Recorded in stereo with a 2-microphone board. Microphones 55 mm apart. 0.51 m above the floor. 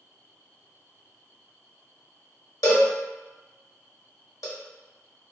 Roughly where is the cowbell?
Left.